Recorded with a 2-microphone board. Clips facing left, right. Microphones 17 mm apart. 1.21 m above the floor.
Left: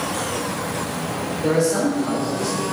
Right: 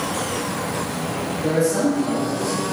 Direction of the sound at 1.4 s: 40° left (ahead or behind).